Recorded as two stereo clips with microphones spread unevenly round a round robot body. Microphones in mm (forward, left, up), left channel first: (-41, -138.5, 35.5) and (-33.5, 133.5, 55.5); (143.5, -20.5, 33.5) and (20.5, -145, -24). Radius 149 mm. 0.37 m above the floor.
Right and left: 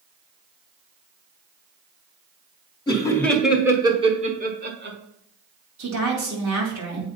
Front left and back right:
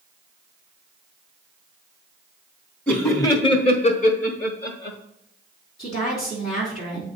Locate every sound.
2.9 s laughter: 75° right, 1.1 m; by 5.0 s 60° left, 1.4 m
5.8 s a woman speaking: 105° left, 2.5 m